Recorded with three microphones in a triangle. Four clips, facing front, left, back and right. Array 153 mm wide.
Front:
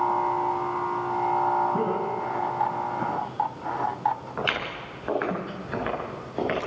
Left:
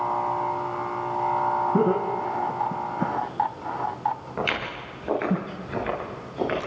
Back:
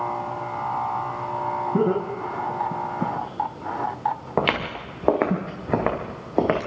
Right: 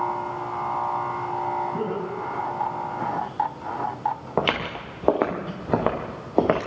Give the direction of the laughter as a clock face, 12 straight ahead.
8 o'clock.